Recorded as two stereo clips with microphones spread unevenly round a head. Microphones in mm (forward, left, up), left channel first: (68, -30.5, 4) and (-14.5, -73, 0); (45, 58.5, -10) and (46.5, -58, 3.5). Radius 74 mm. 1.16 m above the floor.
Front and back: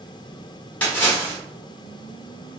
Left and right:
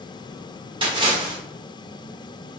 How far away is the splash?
About 1.2 m.